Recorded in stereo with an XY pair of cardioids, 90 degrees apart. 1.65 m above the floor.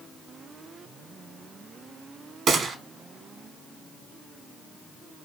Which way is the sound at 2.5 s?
65° right.